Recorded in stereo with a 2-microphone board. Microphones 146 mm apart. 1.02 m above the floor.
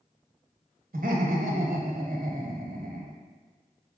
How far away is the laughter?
About 1.0 m.